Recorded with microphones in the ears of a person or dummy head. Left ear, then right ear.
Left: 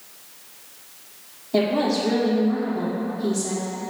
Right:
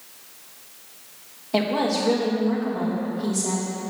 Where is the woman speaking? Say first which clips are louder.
Left 1 dB; 30° right (ahead or behind), 1.6 m.